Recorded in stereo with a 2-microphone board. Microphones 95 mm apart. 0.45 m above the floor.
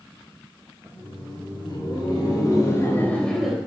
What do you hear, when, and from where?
0.9 s laughter: 65° left (ahead or behind), 4.5 m; by 3.6 s 5° right (ahead or behind), 2 m